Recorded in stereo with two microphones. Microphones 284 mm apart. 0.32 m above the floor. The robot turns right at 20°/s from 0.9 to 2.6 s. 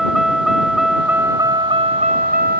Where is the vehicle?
Straight behind; by 2.6 s 145° right.